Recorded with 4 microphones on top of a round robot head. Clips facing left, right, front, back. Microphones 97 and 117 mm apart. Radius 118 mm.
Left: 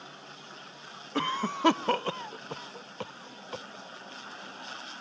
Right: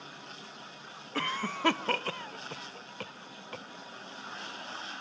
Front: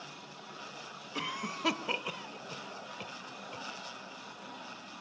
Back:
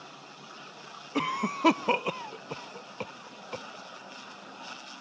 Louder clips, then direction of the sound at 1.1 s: Left 4 dB, back 9 dB; 155° left.